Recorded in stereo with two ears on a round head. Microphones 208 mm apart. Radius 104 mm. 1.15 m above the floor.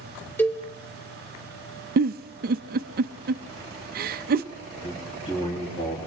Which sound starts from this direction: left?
A man speaking, at 4.8 s.